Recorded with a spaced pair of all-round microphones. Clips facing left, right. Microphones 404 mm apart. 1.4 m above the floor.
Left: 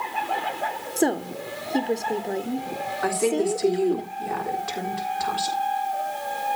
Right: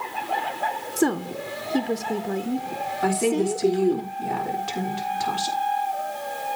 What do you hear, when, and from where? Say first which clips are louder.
1.0 s a woman speaking: right 1 dB; 15° right (ahead or behind), 1.0 m
3.0 s a woman speaking: right 1 dB; 50° right (ahead or behind), 3.5 m